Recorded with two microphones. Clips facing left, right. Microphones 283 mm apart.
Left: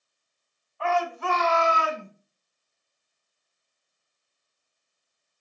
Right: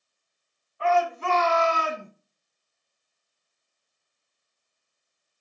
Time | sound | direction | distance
0.8 | a shout | 20° right (ahead or behind) | 1.9 m